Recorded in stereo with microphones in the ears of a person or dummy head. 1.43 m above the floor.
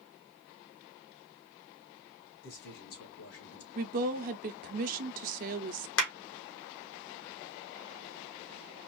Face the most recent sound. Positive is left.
turn(degrees=80)